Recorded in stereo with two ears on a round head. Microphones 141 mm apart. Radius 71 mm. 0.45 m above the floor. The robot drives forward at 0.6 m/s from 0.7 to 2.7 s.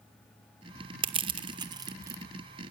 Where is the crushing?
30° right (ahead or behind), 0.6 m; by 2.2 s 20° right (ahead or behind), 1.0 m.